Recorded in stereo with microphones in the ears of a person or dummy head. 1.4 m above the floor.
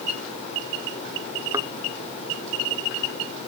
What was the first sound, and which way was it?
A thud, 15° right (ahead or behind).